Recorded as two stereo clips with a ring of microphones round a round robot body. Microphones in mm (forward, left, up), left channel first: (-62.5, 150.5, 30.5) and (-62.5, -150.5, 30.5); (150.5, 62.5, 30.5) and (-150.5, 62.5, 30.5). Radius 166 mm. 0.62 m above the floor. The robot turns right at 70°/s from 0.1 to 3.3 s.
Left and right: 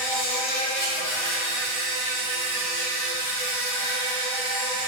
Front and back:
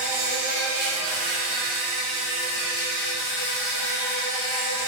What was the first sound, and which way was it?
An insect, 95° left.